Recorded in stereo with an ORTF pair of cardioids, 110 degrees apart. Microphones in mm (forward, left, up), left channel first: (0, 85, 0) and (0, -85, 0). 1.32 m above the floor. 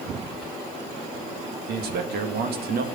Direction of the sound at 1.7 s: 65° right.